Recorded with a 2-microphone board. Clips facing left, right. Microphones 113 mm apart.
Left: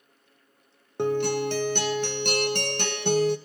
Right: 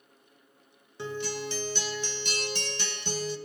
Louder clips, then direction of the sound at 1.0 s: Left 10 dB; 60° left (ahead or behind).